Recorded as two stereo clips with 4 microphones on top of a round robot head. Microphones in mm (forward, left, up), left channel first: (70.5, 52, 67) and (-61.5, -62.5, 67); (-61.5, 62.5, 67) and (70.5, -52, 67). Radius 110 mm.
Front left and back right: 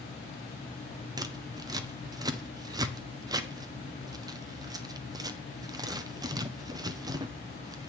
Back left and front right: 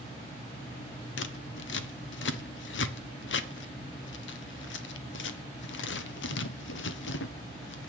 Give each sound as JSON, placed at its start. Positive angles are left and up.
{"t": 1.2, "sound": "scissors", "azimuth_deg": 150, "distance_m": 1.4}